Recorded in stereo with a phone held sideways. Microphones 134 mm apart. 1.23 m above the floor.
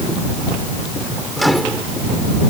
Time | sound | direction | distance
1.4 | a microwave | centre (ahead or behind) | ?